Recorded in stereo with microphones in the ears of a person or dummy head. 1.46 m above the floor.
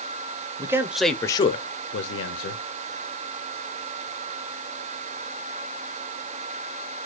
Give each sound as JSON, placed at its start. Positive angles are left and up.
{"t": 0.6, "sound": "a man speaking", "side_deg": -20, "distance_m": 0.8}